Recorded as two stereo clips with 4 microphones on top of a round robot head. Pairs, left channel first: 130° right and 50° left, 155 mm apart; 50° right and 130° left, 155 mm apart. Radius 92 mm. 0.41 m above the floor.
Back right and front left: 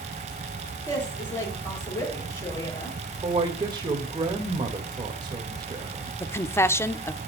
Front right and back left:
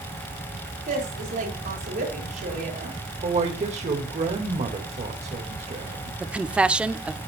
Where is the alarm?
I don't hear an alarm.